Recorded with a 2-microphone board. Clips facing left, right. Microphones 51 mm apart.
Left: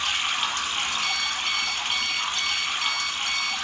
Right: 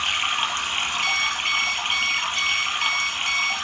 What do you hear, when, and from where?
0.0 s running water: 35° right (ahead or behind), 2.5 m
1.0 s an alarm clock: 55° right (ahead or behind), 3 m